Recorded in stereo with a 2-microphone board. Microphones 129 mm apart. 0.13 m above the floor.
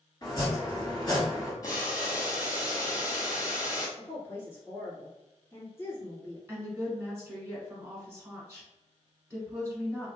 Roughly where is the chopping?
Left.